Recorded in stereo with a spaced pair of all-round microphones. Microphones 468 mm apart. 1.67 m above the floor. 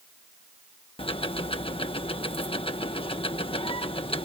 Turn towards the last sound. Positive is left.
turn(degrees=10)  # may be behind; listen again after turning